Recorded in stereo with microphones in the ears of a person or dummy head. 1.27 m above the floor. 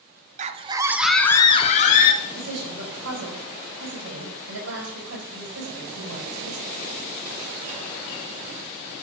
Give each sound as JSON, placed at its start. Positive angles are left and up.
{"t": 0.4, "sound": "a scream", "side_deg": -35, "distance_m": 0.6}
{"t": 2.2, "sound": "a woman speaking", "side_deg": -85, "distance_m": 4.5}